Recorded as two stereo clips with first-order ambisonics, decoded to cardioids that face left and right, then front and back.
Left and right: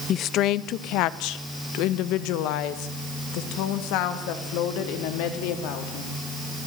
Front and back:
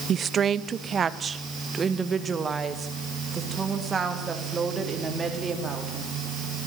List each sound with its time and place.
0.1 s a woman speaking: 130° left, 0.6 m; by 6.2 s 105° left, 4 m